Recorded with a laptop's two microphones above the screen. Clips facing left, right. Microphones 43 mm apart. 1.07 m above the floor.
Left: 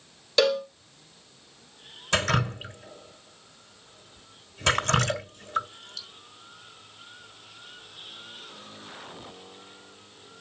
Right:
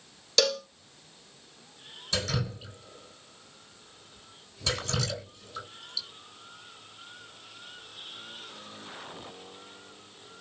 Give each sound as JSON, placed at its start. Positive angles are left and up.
{"t": 0.4, "sound": "a cowbell", "side_deg": 20, "distance_m": 0.6}
{"t": 2.1, "sound": "dripping", "side_deg": 55, "distance_m": 3.5}